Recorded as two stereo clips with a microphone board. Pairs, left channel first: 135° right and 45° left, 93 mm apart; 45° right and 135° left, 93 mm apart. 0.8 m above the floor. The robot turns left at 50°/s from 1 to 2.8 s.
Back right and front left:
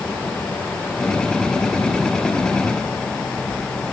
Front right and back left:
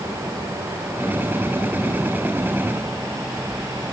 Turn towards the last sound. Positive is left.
No sound to turn to.